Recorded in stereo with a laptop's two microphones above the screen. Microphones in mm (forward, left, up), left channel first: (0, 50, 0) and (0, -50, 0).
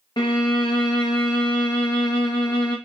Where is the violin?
50° left (ahead or behind), 0.6 m.